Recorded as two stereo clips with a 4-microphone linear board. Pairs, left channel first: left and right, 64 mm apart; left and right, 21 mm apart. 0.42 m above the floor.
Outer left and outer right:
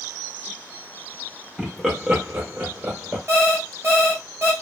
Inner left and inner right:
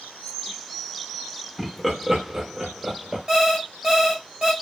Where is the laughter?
Centre (ahead or behind), 1.0 m; by 3.2 s 45° right (ahead or behind), 1.1 m.